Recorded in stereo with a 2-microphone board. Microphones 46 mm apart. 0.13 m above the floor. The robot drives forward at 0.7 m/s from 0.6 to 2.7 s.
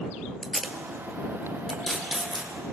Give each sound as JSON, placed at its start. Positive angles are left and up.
{"t": 0.4, "sound": "tape being pulled", "side_deg": 0, "distance_m": 0.9}